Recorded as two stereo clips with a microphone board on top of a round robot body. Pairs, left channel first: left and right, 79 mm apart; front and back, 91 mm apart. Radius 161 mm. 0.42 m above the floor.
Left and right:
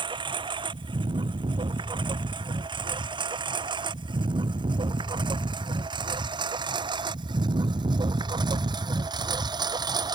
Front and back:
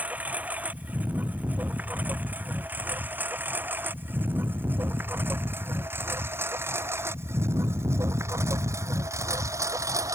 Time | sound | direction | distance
0.0 | a lawn mower | 105° right | ?